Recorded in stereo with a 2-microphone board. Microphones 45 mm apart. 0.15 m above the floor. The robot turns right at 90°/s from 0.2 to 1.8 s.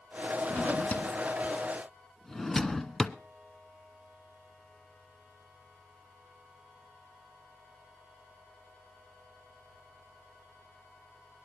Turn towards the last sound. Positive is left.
turn(degrees=5)  # may be behind; listen again after turning